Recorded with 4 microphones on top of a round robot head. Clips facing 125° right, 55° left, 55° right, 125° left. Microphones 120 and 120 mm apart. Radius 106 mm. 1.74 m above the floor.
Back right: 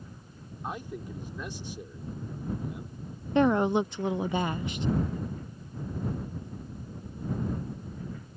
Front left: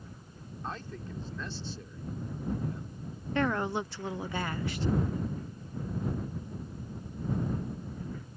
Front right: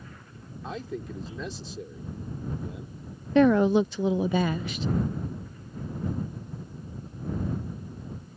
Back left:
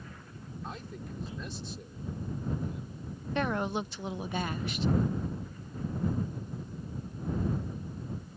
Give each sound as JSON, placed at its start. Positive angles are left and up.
{"t": 0.6, "sound": "a man speaking", "azimuth_deg": -50}
{"t": 3.4, "sound": "a woman speaking", "azimuth_deg": -55}